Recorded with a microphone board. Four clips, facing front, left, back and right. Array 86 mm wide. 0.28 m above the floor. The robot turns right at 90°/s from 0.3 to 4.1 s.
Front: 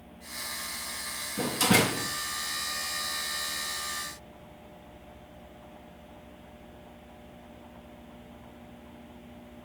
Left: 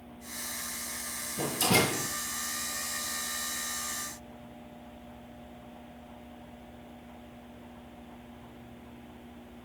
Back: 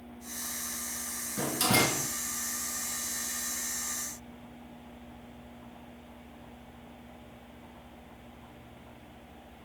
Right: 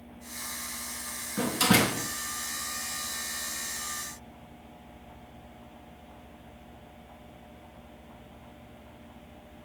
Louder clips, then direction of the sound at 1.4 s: Right 3 dB, front 3 dB; 105° right.